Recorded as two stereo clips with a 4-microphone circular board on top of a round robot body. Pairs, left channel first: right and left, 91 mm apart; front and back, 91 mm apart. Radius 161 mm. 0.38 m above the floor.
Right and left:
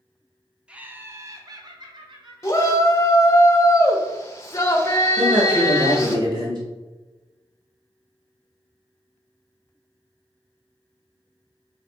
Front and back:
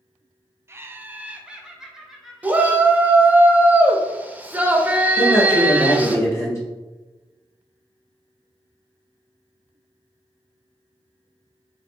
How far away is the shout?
About 0.9 m.